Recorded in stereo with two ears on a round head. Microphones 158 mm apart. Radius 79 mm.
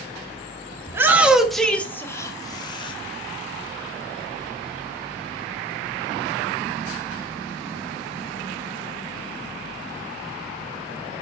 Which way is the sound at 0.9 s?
15° right (ahead or behind).